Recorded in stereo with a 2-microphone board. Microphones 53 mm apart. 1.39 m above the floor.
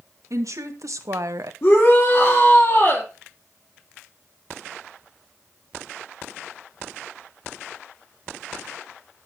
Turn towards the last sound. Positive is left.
turn(degrees=50)  # may be behind; listen again after turning